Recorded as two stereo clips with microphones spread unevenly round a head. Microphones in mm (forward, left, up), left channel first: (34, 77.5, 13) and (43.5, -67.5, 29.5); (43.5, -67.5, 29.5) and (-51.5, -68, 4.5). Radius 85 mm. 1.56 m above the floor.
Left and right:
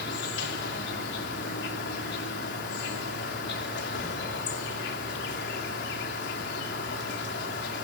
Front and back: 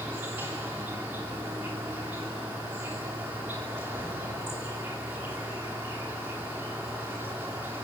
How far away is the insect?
About 2.5 m.